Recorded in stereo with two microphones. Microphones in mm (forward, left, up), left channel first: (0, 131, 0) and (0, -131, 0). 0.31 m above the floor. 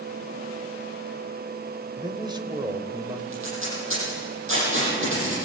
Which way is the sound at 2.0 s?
15° right (ahead or behind).